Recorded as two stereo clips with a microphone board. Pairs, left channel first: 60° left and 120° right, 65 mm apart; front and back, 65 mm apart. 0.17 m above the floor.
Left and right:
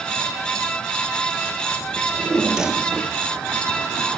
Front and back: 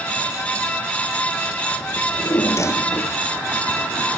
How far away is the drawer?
About 0.8 m.